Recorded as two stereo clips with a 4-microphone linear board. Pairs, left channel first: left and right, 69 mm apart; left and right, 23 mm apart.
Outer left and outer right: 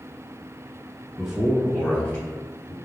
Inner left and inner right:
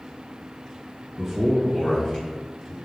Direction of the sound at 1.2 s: 10° right (ahead or behind).